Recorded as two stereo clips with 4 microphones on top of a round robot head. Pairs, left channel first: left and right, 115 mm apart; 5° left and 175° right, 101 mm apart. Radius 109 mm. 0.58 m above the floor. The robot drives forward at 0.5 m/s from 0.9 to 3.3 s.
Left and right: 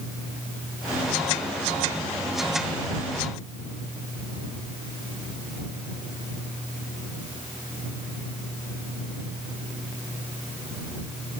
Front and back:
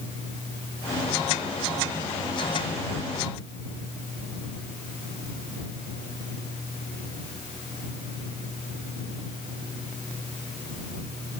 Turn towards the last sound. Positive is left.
No sound to turn to.